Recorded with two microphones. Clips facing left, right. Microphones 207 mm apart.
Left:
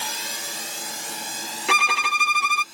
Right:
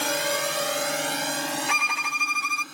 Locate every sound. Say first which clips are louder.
0.0 s a drone: right 11 dB; 65° right (ahead or behind); by 2.8 s 60° right (ahead or behind)
1.7 s a violin: left 6 dB; 90° left